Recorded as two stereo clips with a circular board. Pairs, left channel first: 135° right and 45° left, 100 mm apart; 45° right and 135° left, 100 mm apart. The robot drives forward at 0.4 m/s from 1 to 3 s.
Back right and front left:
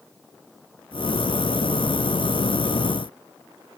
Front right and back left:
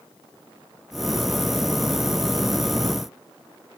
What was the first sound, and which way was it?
Only background noise.